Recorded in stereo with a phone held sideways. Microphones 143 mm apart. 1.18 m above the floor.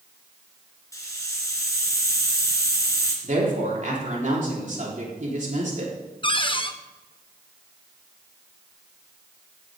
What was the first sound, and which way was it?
A hiss, 20° left (ahead or behind).